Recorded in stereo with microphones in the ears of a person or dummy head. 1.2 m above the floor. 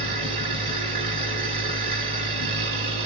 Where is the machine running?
30° right (ahead or behind), 1.3 m.